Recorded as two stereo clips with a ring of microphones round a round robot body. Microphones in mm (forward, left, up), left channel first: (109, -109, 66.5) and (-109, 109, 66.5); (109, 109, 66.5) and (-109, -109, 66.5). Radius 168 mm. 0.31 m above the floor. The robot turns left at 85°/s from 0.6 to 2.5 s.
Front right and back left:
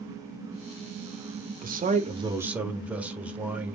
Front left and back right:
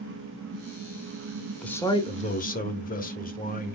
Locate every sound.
1.6 s a man speaking: 130° left, 1.1 m; by 3.8 s 55° left, 1.1 m